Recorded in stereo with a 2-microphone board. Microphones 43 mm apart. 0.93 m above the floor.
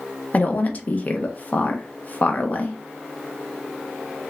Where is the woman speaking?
40° left (ahead or behind), 0.6 m.